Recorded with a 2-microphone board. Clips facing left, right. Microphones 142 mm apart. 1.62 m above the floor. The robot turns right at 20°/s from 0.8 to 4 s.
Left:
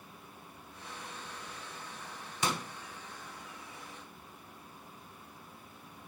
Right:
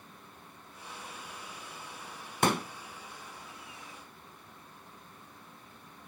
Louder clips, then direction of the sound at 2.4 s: Right 6 dB; 55° right (ahead or behind).